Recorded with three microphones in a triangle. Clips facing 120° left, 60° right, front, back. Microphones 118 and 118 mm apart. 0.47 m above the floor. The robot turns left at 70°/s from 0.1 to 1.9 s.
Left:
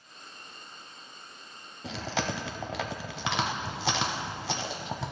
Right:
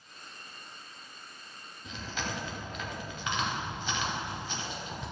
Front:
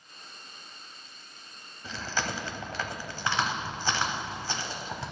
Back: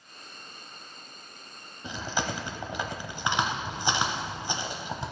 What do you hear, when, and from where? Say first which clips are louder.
1.8 s chewing: left 6 dB, back 2 dB; 115° left, 0.6 m; by 5.1 s 110° left, 0.6 m